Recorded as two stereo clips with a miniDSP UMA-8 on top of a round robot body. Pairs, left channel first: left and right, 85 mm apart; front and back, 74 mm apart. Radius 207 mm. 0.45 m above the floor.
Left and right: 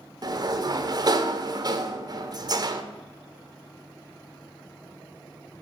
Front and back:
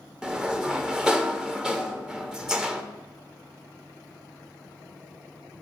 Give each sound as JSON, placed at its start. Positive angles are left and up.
{"t": 0.2, "sound": "a sliding door", "azimuth_deg": -100, "distance_m": 1.0}